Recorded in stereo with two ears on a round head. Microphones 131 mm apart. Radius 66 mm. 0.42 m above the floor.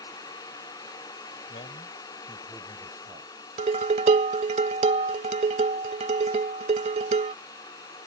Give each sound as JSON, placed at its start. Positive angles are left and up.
{"t": 1.5, "sound": "a man speaking", "side_deg": 50}
{"t": 3.6, "sound": "dishes clattering", "side_deg": -45}